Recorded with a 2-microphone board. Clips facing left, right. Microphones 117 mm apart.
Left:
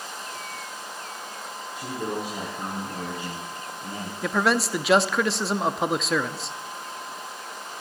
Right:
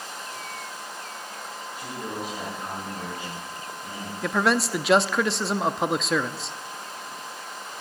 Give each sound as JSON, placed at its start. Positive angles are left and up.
{"t": 1.8, "sound": "a man speaking", "side_deg": 40, "distance_m": 7.5}
{"t": 4.2, "sound": "a man speaking", "side_deg": 0, "distance_m": 0.6}